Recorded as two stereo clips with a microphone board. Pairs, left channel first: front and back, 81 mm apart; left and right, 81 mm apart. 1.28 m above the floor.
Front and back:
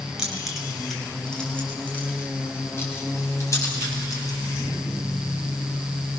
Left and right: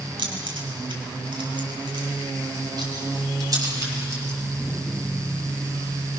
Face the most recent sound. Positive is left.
turn(degrees=-40)